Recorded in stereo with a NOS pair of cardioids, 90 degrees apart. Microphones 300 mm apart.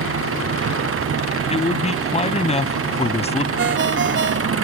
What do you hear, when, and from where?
0.0 s an engine running: 45° right
1.5 s a man speaking: 20° left
3.6 s a ringtone: 40° right